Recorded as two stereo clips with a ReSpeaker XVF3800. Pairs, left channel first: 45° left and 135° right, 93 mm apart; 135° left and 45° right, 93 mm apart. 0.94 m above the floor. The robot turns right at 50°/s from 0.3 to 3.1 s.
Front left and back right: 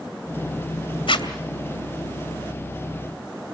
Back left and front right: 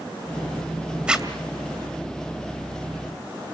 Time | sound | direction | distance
1.1 | a zipper | 30° left | 2.5 m